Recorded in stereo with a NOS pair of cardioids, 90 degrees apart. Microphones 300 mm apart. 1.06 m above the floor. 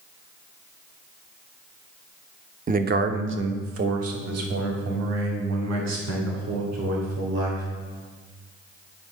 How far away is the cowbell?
No cowbell in this recording.